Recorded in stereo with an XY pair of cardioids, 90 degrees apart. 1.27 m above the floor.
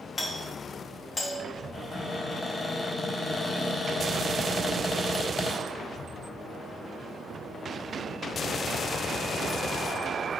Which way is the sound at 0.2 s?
40° left.